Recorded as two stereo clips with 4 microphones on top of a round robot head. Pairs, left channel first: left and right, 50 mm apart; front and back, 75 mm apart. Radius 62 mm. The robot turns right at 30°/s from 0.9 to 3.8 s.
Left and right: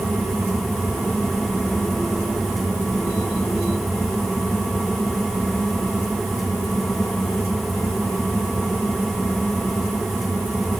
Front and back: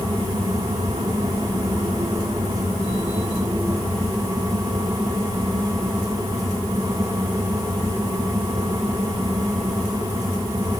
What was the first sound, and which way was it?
Only background noise.